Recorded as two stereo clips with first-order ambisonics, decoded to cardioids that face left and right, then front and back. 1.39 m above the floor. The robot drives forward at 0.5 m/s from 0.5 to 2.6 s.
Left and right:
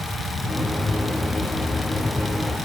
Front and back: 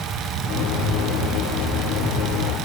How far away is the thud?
No thud in this recording.